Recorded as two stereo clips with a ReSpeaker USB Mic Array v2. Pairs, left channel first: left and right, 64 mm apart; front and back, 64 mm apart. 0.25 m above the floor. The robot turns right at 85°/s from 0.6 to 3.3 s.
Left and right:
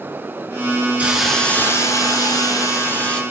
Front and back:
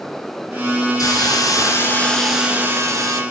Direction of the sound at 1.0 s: 25° right.